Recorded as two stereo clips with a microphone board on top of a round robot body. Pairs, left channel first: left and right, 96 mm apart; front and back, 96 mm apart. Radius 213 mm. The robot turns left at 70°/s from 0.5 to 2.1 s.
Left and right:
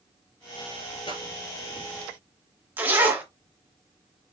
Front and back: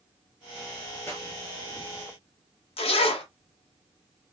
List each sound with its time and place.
1.1 s a pop: 65° left, 3.5 m; by 1.2 s 55° left, 3.5 m
2.8 s a zipper: 20° right, 0.6 m